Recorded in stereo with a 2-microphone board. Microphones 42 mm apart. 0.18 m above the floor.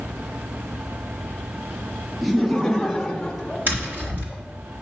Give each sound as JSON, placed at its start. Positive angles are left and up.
{"t": 2.2, "sound": "laughter", "side_deg": -10, "distance_m": 2.0}
{"t": 3.7, "sound": "tapping", "side_deg": -55, "distance_m": 3.0}